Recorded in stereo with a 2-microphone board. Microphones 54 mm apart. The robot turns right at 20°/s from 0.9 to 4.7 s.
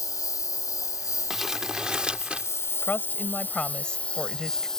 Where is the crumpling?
5° right (ahead or behind); by 2.5 s 20° right (ahead or behind).